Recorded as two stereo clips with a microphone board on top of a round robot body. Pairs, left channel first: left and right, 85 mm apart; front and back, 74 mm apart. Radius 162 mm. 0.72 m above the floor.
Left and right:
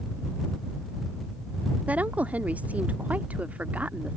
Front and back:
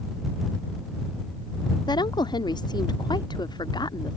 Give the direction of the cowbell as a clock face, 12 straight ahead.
No cowbell in this recording.